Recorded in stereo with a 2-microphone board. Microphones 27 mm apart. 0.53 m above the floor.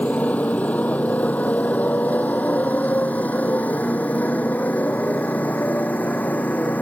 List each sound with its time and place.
0.0 s a motorcycle: 70° left (ahead or behind); by 6.8 s 90° left